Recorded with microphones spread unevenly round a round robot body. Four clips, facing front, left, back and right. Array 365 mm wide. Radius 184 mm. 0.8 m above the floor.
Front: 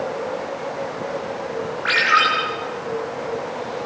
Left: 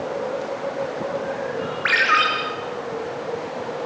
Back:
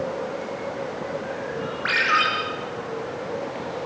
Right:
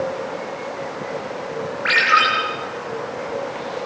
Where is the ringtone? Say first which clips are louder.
Right 3 dB, front 4 dB; 175° left, 7.5 m.